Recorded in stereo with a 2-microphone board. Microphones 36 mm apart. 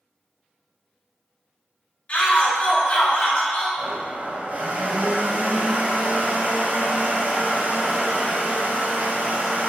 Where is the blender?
40° right (ahead or behind), 1.8 m.